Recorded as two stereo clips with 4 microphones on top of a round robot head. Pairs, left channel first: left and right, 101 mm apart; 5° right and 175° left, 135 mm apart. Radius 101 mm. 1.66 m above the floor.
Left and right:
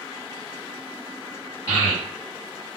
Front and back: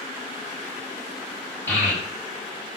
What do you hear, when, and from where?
1.7 s a child speaking: 65° left, 1.9 m